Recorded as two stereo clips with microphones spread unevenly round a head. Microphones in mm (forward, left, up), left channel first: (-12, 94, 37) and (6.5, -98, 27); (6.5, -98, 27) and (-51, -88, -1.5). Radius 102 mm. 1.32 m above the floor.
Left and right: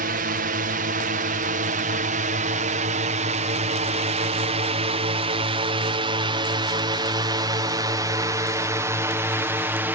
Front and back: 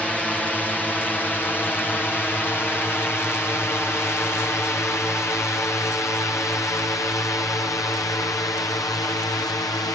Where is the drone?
95° right; by 9.9 s 15° right.